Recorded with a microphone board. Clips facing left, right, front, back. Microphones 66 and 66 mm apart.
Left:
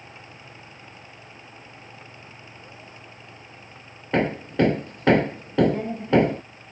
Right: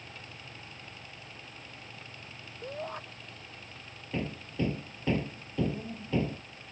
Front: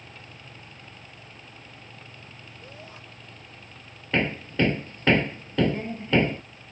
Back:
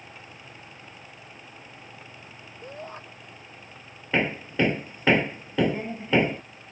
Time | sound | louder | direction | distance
2.6 | a shout | right 6 dB, back 8 dB | 125° right | ?
4.1 | hammering | left 13 dB, even | 100° left | ?